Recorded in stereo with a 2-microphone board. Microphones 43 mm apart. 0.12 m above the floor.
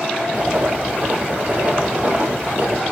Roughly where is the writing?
Right.